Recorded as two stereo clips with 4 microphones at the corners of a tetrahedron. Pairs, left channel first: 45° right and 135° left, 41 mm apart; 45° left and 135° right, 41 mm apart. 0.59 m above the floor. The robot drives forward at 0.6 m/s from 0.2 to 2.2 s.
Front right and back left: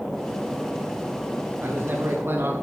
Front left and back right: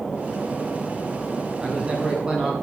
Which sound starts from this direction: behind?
A man speaking, at 1.6 s.